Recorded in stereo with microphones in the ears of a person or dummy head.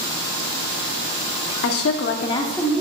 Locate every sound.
1.6 s a woman speaking: 80° left, 0.9 m; by 2.8 s 5° left (ahead or behind), 1.3 m